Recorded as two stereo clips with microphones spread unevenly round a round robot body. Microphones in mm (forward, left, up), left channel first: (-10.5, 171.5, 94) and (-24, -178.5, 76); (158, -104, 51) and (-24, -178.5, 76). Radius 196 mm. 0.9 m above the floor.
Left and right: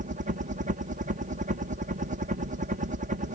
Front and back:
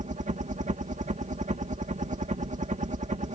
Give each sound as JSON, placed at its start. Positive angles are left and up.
{"t": 0.0, "sound": "a helicopter", "azimuth_deg": -135}